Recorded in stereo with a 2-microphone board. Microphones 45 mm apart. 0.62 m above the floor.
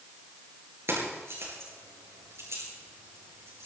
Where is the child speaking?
No child speaking in this recording.